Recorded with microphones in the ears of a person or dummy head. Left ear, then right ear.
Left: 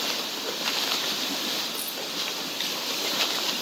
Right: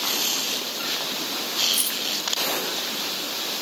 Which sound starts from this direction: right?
Keys jangling, at 1.7 s.